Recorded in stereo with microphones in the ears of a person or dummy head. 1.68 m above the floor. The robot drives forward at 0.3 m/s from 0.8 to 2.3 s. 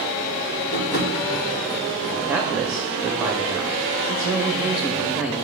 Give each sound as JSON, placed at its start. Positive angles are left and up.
{"t": 0.7, "sound": "tapping", "side_deg": 60, "distance_m": 3.5}
{"t": 2.2, "sound": "a man speaking", "side_deg": -10, "distance_m": 0.8}